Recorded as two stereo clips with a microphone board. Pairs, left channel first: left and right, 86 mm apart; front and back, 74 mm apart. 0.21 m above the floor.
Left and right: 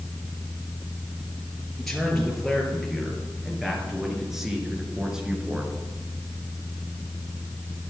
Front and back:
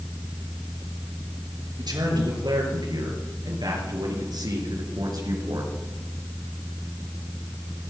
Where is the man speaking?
175° left, 5 m; by 5.7 s 170° right, 3.5 m.